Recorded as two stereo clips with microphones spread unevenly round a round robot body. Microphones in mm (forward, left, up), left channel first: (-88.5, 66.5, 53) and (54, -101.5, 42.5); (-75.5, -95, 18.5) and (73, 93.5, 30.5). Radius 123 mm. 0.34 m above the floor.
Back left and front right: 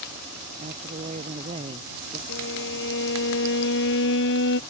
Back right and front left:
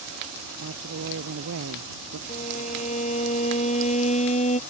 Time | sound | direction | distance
0.6 | a woman speaking | 10° left | ?
2.3 | a violin | 170° left | ?